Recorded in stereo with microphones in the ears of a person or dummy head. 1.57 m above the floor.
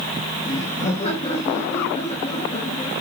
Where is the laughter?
35° left (ahead or behind), 2.5 m.